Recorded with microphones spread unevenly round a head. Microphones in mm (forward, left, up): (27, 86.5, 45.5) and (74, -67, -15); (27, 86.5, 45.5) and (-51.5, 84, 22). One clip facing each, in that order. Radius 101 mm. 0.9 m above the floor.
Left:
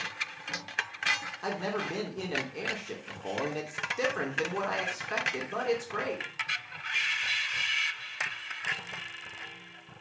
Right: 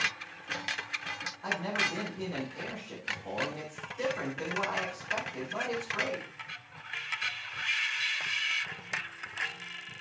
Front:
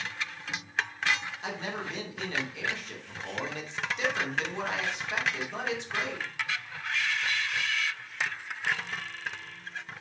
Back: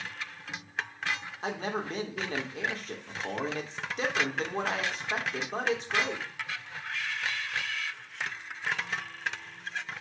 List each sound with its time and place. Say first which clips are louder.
1.4 s a man speaking: left 3 dB, back 3 dB; 145° left, 3 m